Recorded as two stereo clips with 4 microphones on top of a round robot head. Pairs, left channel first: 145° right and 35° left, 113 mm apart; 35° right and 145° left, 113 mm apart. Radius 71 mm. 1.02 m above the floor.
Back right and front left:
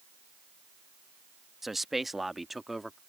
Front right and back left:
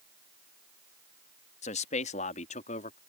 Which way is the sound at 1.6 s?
55° right.